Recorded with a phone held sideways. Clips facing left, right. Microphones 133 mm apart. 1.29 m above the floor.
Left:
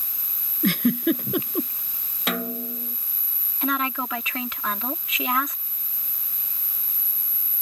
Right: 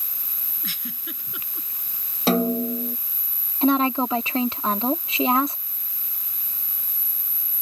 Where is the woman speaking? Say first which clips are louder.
Right 7 dB; 30° right (ahead or behind).